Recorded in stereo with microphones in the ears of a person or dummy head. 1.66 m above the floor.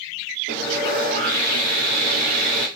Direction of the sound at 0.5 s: 55° right (ahead or behind).